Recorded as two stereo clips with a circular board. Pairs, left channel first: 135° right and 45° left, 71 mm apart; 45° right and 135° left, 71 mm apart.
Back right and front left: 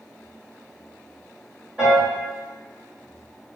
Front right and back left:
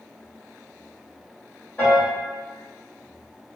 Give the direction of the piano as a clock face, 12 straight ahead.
12 o'clock.